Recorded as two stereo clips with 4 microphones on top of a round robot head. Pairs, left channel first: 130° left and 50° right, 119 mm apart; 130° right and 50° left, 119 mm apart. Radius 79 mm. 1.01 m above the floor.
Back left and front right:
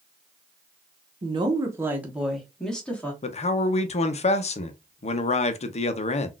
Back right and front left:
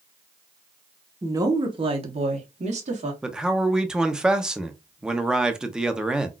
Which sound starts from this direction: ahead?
A woman speaking, at 1.2 s.